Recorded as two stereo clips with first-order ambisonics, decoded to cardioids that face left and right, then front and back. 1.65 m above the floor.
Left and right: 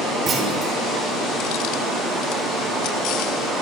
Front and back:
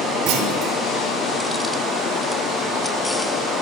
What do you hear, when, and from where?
0.3 s a clunk: 155° right, 6.5 m